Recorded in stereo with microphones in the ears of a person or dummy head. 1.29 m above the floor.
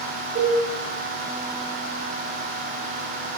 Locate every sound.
0.3 s a cowbell: 45° right (ahead or behind), 0.9 m